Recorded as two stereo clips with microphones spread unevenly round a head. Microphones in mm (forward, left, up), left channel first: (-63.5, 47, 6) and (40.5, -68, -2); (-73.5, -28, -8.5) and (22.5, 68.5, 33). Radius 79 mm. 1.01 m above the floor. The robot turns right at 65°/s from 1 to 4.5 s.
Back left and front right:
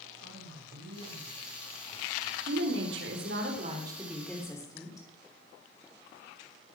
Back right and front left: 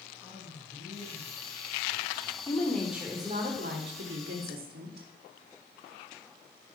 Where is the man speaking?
40° right, 6.5 m; by 2.4 s 50° left, 6.5 m.